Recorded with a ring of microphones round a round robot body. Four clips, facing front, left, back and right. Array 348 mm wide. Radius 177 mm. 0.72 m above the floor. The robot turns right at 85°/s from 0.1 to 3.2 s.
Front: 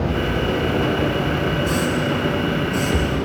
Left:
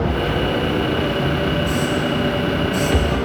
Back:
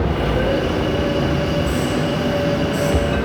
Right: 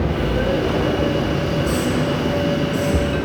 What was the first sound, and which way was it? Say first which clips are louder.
A hiss: even, back 1 dB; 40° right.